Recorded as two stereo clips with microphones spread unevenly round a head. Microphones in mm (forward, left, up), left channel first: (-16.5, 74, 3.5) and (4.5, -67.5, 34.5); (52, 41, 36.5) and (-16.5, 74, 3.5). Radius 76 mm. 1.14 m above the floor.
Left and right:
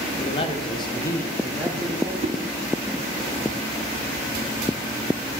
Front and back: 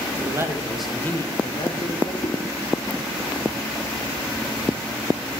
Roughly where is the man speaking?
Behind left.